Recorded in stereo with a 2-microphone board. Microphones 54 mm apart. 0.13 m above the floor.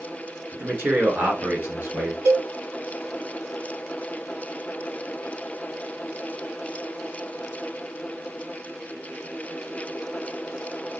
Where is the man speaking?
35° right (ahead or behind), 1.5 m; by 2.1 s 45° right (ahead or behind), 2.5 m.